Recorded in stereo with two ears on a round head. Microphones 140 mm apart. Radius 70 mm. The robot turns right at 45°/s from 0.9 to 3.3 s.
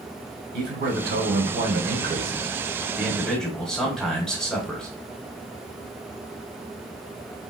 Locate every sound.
0.5 s a man speaking: 105° right, 1.3 m; by 4.9 s straight ahead, 1.3 m